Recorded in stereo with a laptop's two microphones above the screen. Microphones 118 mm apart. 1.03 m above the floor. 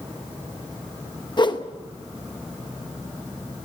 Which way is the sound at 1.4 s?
40° left (ahead or behind).